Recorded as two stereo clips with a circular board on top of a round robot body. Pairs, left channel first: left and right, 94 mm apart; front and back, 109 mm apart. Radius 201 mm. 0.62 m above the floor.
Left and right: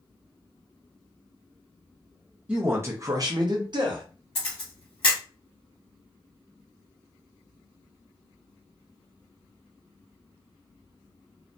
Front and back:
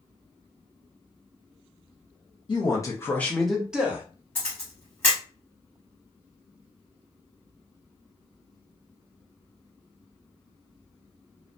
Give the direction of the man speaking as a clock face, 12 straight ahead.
1 o'clock.